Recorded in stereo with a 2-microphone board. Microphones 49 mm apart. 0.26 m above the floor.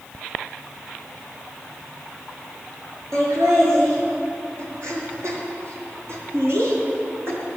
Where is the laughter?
75° right (ahead or behind), 5.5 m; by 7.4 s 60° right (ahead or behind), 3.5 m.